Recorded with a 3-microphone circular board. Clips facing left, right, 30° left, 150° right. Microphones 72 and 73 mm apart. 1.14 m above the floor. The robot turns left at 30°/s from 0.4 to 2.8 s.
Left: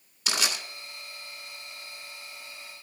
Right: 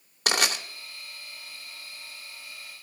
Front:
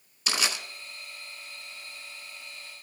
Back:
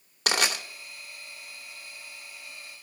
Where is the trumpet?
No trumpet in this recording.